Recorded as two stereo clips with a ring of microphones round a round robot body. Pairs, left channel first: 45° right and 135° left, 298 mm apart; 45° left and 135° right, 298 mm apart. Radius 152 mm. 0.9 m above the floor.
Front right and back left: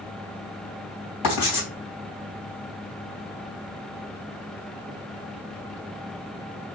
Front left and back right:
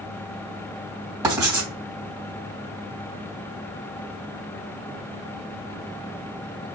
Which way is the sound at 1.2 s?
55° right.